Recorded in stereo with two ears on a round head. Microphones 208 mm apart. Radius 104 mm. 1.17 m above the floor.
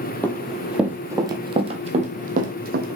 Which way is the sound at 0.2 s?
10° left (ahead or behind).